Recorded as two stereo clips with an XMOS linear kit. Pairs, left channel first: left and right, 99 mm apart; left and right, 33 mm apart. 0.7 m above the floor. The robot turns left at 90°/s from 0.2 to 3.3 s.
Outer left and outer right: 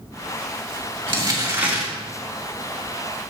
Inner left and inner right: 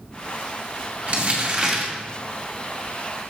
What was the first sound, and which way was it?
Crumpling, 105° right.